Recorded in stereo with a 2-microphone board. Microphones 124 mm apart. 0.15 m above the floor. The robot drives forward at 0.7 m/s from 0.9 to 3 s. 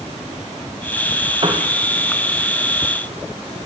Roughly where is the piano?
Right.